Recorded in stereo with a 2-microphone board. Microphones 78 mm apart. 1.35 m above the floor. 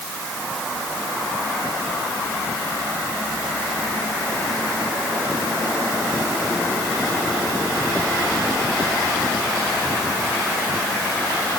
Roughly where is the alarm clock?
I don't hear an alarm clock.